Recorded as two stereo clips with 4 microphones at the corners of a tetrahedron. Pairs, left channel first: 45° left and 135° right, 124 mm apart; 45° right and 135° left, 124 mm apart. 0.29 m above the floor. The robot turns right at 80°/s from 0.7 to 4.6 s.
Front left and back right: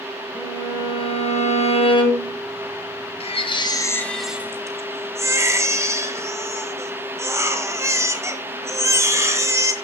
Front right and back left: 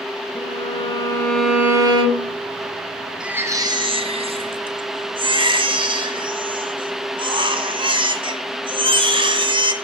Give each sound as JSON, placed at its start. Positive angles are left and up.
{"t": 0.3, "sound": "a violin", "azimuth_deg": -15, "distance_m": 2.5}
{"t": 3.2, "sound": "a baby crying", "azimuth_deg": 50, "distance_m": 1.4}